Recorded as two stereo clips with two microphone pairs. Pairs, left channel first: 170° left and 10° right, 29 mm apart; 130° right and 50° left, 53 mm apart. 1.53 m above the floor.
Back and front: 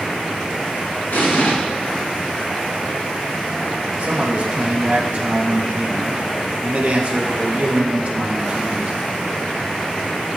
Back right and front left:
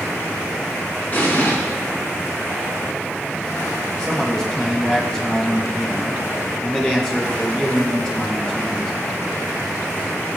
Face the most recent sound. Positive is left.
turn(degrees=-55)